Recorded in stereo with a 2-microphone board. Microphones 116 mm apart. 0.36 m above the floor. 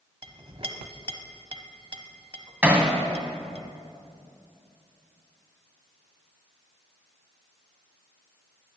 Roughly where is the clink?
Right.